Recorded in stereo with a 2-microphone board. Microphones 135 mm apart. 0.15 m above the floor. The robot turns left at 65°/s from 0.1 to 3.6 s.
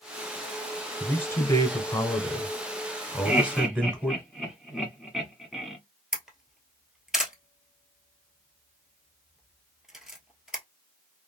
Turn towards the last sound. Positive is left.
turn(degrees=-5)  # may be behind; listen again after turning